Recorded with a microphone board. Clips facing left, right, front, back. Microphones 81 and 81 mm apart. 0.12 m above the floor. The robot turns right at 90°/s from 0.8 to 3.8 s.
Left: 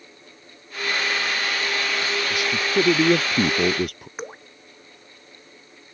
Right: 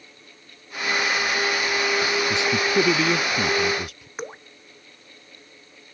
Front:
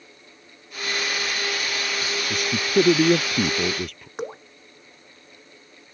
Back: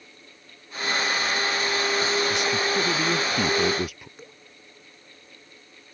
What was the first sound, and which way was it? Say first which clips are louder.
A man speaking: even, front 2 dB; 35° right.